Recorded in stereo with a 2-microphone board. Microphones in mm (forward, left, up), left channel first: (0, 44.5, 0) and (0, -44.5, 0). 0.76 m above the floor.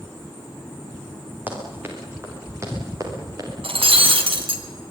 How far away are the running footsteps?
About 8 m.